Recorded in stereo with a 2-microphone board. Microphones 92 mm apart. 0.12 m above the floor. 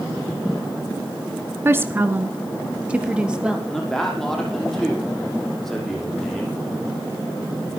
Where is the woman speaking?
25° right (ahead or behind), 1.5 m; by 3.6 s 10° right (ahead or behind), 3 m.